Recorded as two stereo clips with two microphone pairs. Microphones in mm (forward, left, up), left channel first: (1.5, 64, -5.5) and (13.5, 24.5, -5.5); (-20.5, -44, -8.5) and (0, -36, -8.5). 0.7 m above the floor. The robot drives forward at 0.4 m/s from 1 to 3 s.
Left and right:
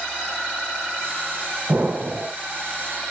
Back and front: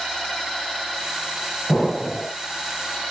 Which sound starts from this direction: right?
An explosion, at 1.7 s.